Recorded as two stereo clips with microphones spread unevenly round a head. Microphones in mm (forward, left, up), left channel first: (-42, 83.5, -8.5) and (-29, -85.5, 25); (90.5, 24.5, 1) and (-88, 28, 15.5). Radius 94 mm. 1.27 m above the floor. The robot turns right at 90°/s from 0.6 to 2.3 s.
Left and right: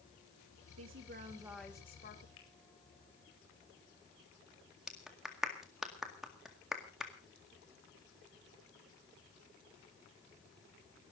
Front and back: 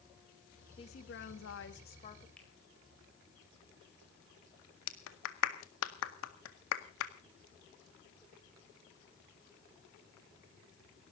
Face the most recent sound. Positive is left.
turn(degrees=0)